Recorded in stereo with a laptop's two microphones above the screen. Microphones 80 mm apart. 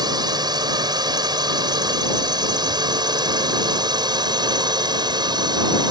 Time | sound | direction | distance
0.0 | a drone | 60° right (ahead or behind) | ?